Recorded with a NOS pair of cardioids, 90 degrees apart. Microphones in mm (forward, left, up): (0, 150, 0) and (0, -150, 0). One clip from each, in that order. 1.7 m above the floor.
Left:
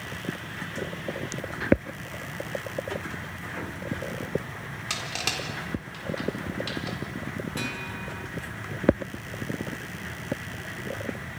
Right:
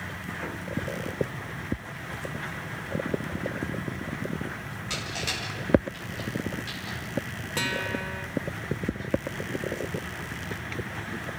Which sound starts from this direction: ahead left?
Crushing, at 4.9 s.